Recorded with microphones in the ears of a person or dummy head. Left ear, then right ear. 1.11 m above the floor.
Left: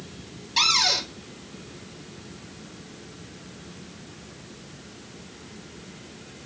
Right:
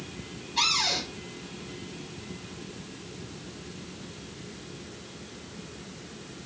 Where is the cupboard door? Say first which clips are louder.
Left 5 dB; 65° left (ahead or behind), 4.5 m.